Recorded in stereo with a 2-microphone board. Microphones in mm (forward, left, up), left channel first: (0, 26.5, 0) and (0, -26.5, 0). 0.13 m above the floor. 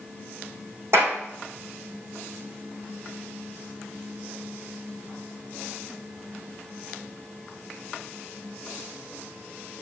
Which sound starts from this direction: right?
A clap, at 0.9 s.